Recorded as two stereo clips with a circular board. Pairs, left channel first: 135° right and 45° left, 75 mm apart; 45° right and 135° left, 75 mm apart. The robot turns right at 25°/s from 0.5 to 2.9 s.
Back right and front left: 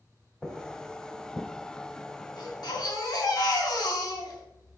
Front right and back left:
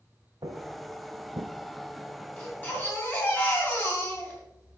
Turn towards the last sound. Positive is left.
turn(degrees=-105)